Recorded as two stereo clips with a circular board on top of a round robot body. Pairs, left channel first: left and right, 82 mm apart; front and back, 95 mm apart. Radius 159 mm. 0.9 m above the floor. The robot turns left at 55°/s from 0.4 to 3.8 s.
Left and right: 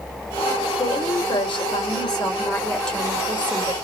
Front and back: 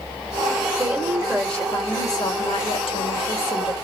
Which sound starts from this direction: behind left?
A woman speaking, at 0.8 s.